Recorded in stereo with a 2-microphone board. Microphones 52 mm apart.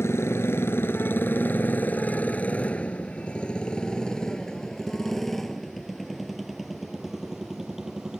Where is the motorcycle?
50° left (ahead or behind); by 8.2 s 10° right (ahead or behind).